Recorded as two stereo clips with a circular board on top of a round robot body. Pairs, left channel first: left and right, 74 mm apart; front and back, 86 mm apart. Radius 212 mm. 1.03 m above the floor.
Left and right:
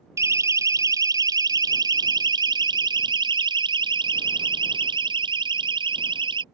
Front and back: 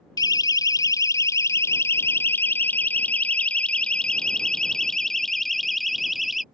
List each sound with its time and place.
0.2 s a siren: 40° right; by 6.4 s 90° right